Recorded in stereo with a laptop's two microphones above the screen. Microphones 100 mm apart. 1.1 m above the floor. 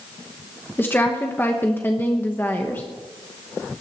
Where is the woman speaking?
20° left (ahead or behind), 1.0 m.